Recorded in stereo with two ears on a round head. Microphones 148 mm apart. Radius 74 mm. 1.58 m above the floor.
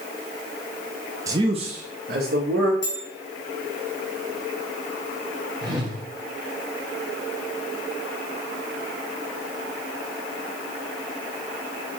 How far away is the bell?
About 1.9 m.